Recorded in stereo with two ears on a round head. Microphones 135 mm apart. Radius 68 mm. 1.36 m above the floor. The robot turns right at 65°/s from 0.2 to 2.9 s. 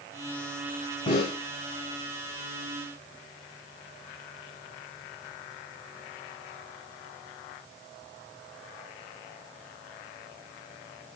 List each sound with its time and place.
1.1 s a snare drum: 35° left (ahead or behind), 3.5 m; by 1.4 s 55° left (ahead or behind), 3.5 m